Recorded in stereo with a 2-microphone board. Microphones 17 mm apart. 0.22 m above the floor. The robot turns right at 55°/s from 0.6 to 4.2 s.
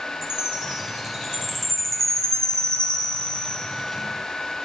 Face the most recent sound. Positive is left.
turn(degrees=145)